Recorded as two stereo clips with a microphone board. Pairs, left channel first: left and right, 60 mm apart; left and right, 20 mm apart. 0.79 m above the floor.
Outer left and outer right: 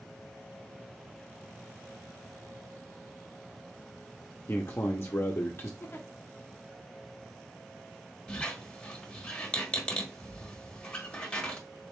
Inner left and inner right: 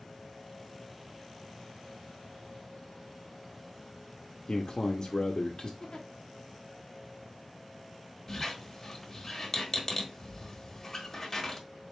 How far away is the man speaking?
About 0.9 m.